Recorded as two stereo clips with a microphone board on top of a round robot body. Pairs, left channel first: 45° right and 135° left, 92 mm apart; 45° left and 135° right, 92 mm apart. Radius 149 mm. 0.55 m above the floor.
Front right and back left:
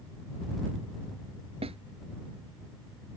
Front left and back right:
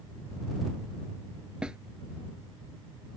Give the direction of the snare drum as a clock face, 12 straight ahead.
7 o'clock.